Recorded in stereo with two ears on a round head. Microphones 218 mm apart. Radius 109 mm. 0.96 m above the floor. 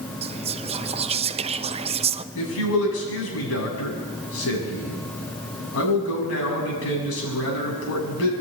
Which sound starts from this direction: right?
Whispering, at 0.2 s.